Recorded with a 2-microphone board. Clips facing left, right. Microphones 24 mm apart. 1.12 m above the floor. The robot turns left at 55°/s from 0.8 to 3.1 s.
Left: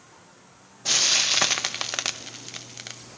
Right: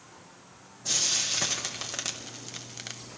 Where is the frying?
35° left (ahead or behind), 0.5 m; by 3.0 s centre (ahead or behind), 0.5 m.